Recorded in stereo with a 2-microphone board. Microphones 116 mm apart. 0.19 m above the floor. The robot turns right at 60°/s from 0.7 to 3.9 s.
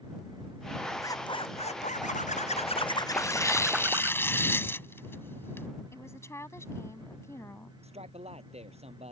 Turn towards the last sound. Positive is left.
turn(degrees=-60)  # may be behind; listen again after turning